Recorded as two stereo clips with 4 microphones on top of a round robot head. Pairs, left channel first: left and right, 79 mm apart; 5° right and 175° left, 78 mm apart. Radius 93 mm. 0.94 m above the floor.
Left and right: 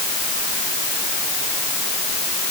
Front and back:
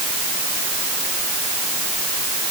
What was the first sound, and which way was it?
Only background noise.